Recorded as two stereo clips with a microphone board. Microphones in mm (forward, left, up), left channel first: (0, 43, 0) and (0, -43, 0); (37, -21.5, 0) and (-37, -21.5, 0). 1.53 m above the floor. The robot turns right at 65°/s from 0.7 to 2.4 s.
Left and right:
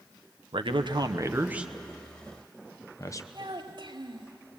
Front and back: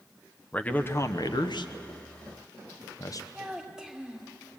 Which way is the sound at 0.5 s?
70° right.